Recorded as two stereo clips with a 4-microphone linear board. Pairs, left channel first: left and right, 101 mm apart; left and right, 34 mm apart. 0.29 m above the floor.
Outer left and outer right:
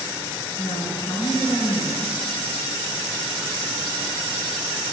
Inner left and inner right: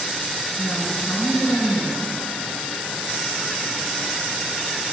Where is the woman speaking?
70° left (ahead or behind), 4 m.